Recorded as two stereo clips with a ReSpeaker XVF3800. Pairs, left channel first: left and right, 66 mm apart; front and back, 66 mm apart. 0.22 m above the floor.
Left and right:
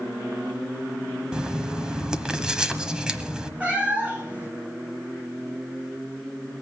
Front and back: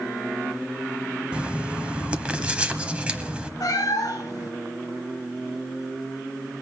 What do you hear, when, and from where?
1.3 s writing: 145° right, 1.0 m
3.6 s a cat meowing: 20° right, 1.7 m